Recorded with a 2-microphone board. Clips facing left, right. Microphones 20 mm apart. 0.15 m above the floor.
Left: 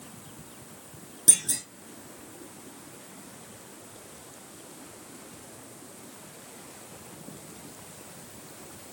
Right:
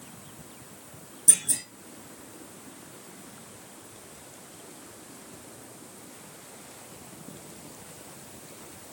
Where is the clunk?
70° left (ahead or behind), 2 m.